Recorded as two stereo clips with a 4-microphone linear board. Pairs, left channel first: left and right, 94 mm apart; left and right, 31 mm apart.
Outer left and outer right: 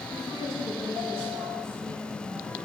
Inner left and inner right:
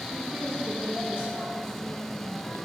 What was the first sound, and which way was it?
A woman speaking, 40° right (ahead or behind).